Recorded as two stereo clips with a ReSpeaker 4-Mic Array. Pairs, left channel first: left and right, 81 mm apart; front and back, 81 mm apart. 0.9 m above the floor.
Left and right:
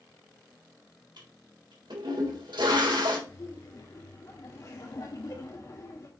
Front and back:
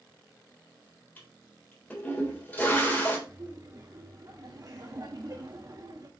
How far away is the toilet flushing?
About 3.5 m.